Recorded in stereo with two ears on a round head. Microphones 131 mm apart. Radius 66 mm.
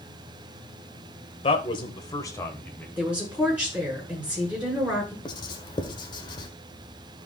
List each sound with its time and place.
1.4 s a man speaking: 45° left (ahead or behind), 2 m; by 2.9 s 10° left (ahead or behind), 2.5 m
3.0 s a woman speaking: 10° right (ahead or behind), 7.5 m
5.2 s writing: 30° left (ahead or behind), 1.6 m